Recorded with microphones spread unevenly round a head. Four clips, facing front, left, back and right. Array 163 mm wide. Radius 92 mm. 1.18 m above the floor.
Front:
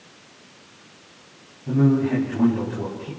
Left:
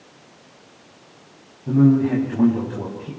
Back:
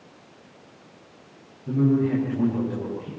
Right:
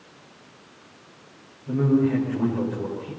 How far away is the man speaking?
About 6.5 m.